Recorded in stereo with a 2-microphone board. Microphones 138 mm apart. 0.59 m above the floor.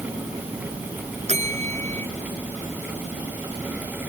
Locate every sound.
1.3 s a bell: 55° right (ahead or behind)